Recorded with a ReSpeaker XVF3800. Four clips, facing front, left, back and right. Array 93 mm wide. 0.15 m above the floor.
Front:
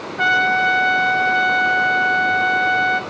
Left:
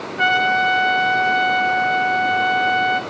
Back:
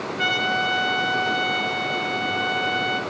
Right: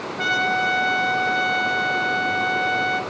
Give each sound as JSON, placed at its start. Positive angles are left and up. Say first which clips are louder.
{"t": 0.2, "sound": "a trumpet", "louder": "left 5 dB, front 8 dB", "azimuth_deg": 45, "distance_m": 0.9}